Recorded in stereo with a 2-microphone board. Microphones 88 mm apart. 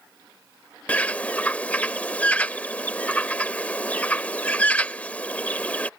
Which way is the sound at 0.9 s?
15° left (ahead or behind).